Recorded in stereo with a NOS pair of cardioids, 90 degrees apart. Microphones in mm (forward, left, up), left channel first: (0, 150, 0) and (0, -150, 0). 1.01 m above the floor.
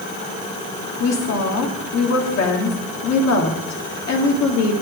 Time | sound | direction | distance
1.0 | a woman speaking | 60° left | 2 m